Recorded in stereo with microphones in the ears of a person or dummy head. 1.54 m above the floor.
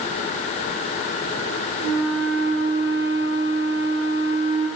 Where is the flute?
60° right (ahead or behind), 7 m.